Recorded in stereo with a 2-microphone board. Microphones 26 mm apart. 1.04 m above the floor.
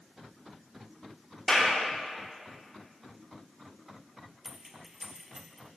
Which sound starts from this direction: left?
A clap, at 1.5 s.